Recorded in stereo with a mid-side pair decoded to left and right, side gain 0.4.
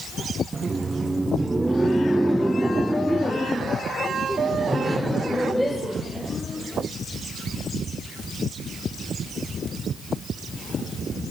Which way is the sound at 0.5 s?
35° right.